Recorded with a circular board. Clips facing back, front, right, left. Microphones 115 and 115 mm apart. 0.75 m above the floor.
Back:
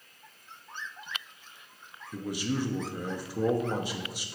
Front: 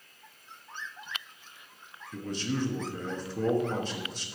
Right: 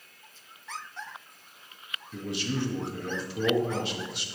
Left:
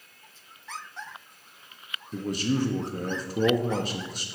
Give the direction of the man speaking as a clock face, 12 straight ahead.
9 o'clock.